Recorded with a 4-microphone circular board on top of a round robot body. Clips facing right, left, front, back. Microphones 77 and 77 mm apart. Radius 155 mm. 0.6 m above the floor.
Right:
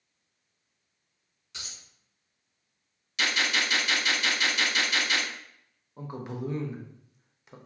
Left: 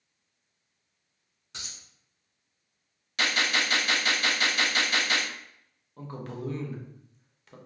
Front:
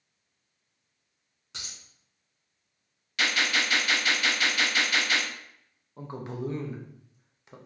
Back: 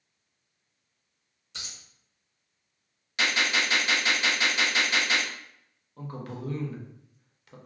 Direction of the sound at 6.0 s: 40° right.